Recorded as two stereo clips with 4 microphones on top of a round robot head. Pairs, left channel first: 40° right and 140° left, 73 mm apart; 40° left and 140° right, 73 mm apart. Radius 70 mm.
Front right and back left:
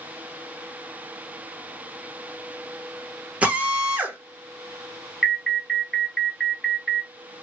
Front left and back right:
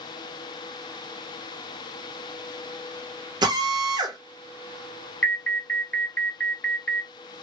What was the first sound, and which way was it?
A drill, 150° right.